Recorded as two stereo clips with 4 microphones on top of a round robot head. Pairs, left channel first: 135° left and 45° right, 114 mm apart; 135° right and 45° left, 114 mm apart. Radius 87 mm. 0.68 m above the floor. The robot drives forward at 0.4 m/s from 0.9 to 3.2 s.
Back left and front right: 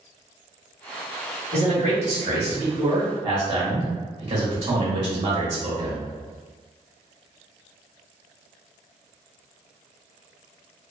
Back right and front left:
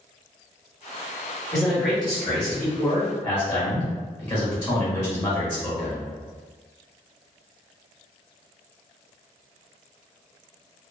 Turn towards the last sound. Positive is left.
turn(degrees=-80)